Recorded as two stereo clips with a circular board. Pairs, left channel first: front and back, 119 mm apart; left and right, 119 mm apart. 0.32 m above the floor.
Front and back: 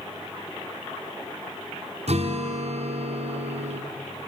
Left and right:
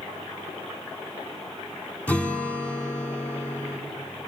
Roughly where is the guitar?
Behind.